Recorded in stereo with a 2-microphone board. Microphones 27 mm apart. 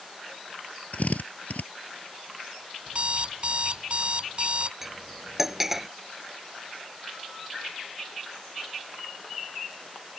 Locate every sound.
0.9 s a drill: 70° left (ahead or behind)
2.9 s an alarm clock: 45° right (ahead or behind)
4.8 s cutlery clinking: 10° right (ahead or behind)